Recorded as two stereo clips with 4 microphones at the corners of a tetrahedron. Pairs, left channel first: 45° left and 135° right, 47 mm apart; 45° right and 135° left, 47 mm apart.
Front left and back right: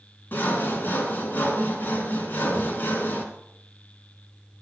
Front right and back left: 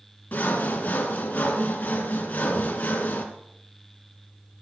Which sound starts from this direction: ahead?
Sawing, at 0.3 s.